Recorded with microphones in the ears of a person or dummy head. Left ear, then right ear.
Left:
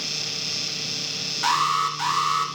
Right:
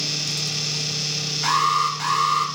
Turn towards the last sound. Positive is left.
turn(degrees=35)  # may be behind; listen again after turning